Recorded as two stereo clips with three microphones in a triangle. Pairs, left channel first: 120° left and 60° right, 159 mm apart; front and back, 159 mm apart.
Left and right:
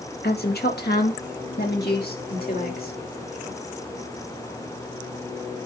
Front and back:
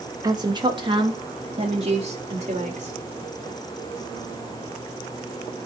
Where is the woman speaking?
115° left, 1.9 m; by 3.0 s 140° left, 3 m.